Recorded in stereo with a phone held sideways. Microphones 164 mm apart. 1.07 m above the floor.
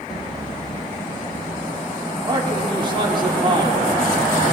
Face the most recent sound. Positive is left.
turn(degrees=-30)  # may be behind; listen again after turning